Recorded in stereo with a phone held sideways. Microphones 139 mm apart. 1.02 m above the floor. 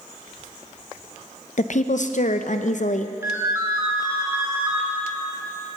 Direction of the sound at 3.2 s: 20° right (ahead or behind).